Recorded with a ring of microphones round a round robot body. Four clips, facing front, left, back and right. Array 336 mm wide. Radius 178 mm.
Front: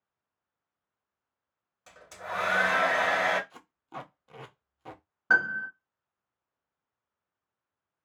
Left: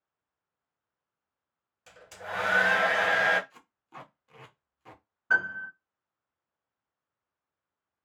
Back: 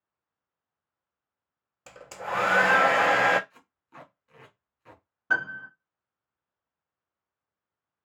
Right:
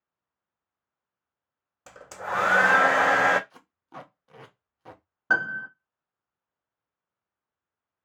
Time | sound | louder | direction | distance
1.9 | a hair dryer | right 7 dB, back 5 dB | 135° right | 0.6 m
3.5 | tape being pulled | right 4 dB, front 8 dB | 35° right | 0.8 m
5.3 | a piano | right 2 dB, front 3 dB | 80° right | 0.8 m